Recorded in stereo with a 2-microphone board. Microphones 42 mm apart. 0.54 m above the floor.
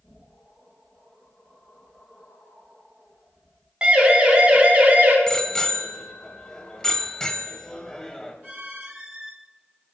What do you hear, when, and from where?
3.8 s a siren: 25° right (ahead or behind), 4 m; by 5.2 s 35° right (ahead or behind), 4 m
5.3 s a bicycle bell: 15° left (ahead or behind), 2 m